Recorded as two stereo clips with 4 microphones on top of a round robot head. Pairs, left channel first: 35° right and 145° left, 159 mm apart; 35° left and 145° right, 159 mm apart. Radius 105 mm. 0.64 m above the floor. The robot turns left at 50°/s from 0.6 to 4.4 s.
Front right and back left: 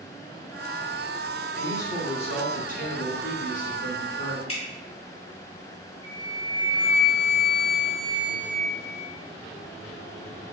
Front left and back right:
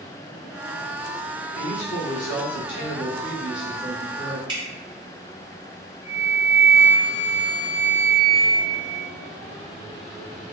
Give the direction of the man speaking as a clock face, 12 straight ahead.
11 o'clock.